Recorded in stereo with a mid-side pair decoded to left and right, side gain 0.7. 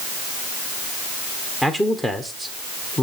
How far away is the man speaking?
About 1.3 m.